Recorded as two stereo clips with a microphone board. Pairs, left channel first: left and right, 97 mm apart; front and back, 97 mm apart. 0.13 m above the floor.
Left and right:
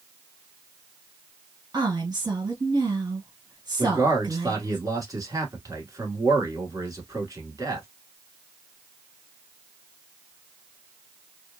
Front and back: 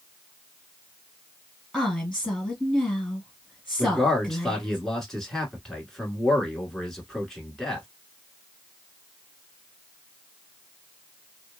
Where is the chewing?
No chewing in this recording.